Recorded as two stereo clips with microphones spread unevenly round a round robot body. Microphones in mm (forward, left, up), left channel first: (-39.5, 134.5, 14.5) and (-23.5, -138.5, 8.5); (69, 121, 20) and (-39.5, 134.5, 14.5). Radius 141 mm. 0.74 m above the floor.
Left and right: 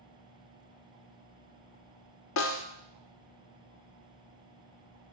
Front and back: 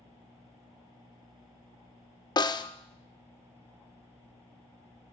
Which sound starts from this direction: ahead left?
A snare drum, at 2.4 s.